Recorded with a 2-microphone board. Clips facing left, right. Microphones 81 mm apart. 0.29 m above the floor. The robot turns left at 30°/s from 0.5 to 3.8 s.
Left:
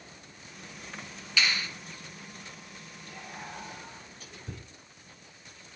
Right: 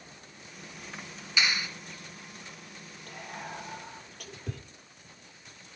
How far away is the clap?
About 2.5 m.